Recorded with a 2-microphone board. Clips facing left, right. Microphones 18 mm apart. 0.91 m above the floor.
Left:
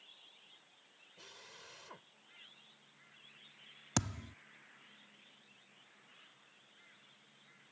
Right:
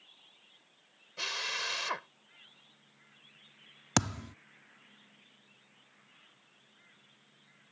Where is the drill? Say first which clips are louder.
Right 22 dB; 70° right (ahead or behind).